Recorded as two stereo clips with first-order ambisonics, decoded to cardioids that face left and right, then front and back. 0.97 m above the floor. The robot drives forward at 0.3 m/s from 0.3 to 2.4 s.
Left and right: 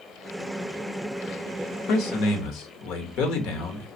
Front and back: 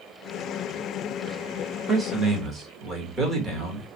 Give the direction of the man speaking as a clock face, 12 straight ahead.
8 o'clock.